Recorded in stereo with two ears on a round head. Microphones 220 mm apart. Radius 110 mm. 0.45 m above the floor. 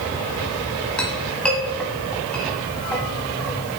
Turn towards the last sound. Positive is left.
turn(degrees=5)  # may be behind; listen again after turning